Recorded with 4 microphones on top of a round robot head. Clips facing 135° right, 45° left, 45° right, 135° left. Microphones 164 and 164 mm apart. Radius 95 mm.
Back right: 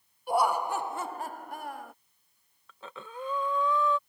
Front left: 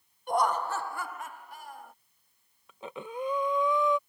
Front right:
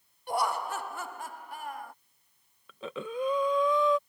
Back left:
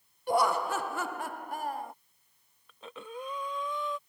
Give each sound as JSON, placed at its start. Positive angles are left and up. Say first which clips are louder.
{"t": 0.3, "sound": "laughter", "louder": "back right 1 dB, back left 4 dB", "azimuth_deg": 140}
{"t": 2.7, "sound": "breathing", "louder": "front left 5 dB, front right 7 dB", "azimuth_deg": -30}